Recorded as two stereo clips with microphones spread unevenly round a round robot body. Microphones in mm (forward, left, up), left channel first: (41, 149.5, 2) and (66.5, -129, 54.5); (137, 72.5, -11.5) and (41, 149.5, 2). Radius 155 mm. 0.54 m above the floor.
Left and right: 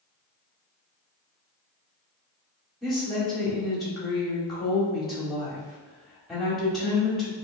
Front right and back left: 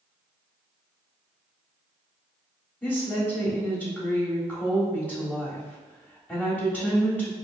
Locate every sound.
2.8 s a woman speaking: 20° left, 1.5 m